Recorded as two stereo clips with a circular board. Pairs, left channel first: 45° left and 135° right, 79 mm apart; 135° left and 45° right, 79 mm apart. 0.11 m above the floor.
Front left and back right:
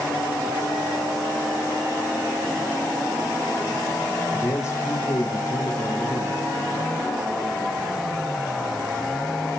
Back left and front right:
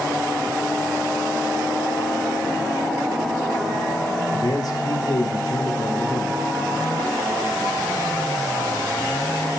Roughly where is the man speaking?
Left.